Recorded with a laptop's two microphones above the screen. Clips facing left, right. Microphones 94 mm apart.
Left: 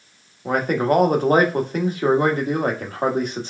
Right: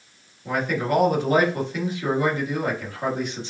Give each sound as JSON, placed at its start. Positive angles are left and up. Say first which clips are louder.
{"t": 0.5, "sound": "a man speaking", "louder": "left 5 dB", "side_deg": 50, "distance_m": 1.4}